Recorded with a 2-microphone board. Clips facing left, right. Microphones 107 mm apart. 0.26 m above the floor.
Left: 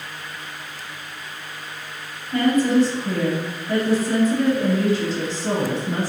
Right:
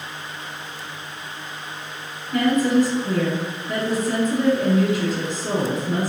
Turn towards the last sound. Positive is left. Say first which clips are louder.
# left 1 dB
turn(degrees=30)  # may be behind; listen again after turning